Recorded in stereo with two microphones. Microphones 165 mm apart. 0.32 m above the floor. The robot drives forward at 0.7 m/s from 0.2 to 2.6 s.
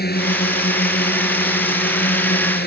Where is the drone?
75° left (ahead or behind).